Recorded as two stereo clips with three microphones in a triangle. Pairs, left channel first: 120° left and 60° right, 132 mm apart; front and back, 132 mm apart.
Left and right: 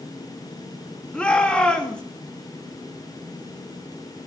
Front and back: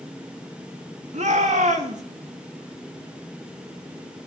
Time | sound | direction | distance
1.1 | a shout | 160° right | 1.9 m